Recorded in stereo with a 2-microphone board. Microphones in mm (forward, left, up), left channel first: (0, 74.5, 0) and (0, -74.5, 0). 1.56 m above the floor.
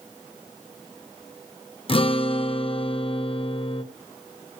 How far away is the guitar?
About 1.1 m.